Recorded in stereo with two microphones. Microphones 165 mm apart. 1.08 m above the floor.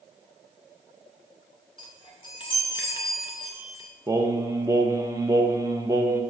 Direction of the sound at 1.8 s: 30° left (ahead or behind).